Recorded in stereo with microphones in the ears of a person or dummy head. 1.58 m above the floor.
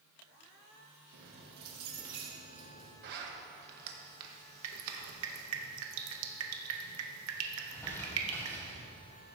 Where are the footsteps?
I don't hear footsteps.